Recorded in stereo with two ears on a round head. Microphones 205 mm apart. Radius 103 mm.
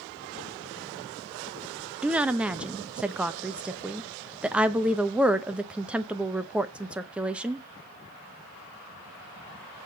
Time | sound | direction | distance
2.0 | a woman speaking | 5° right (ahead or behind) | 0.7 m